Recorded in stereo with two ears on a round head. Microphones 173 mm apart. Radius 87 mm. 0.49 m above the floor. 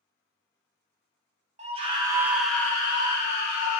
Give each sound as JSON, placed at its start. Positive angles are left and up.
{"t": 1.6, "sound": "a scream", "side_deg": -35, "distance_m": 0.9}